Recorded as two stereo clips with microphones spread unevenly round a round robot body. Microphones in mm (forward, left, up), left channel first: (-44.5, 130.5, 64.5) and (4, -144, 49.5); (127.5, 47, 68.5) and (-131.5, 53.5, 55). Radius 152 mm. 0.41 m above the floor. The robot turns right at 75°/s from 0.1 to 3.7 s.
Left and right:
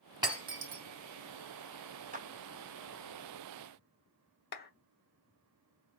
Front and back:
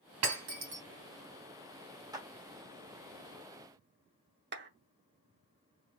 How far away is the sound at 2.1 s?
About 1.4 m.